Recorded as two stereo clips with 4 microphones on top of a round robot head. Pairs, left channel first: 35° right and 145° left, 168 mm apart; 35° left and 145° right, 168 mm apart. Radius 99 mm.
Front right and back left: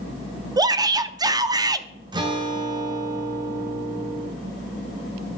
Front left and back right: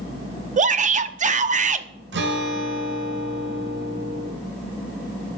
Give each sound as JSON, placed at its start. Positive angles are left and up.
{"t": 0.6, "sound": "a shout", "azimuth_deg": -155, "distance_m": 1.0}
{"t": 2.1, "sound": "a guitar", "azimuth_deg": -150, "distance_m": 2.5}